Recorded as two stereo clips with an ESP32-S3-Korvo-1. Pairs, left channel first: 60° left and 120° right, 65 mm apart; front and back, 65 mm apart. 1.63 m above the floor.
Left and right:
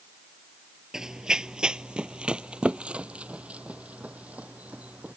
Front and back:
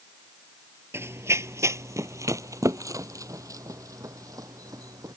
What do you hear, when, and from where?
0.9 s running footsteps: 165° left; by 5.1 s 175° left